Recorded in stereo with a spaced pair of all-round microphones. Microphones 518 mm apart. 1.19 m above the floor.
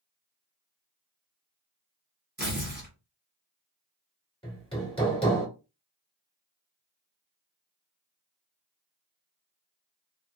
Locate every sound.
2.4 s tearing paper: 20° right (ahead or behind), 1.5 m
4.4 s hammering: 10° left (ahead or behind), 1.3 m